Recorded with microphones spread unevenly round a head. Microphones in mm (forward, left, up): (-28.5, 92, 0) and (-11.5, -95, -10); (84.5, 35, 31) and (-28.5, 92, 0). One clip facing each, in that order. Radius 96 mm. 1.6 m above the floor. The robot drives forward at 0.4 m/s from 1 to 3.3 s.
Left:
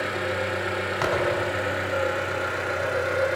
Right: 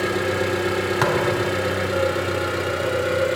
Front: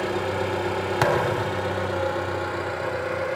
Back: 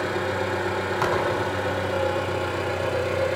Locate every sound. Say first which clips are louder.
0.0 s an engine running: right 6 dB, even; 100° right, 2.0 m; by 3.4 s 125° right, 2.5 m
1.0 s a thud: right 1 dB, front 2 dB; 60° right, 4.5 m